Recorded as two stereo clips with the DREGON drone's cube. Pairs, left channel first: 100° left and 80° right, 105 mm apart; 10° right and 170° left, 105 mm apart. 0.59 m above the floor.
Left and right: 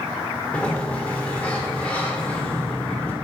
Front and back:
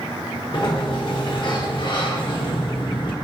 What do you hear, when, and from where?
0.5 s a sliding door: 20° left, 1.0 m